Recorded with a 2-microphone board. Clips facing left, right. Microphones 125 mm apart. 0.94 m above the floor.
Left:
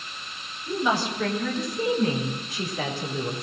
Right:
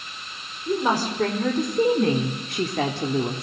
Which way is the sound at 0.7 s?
45° right (ahead or behind).